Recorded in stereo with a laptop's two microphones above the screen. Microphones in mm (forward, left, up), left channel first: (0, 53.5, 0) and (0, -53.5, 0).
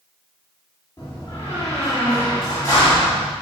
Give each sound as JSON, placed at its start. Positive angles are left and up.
{"t": 1.0, "sound": "a door slam", "side_deg": 35, "distance_m": 1.7}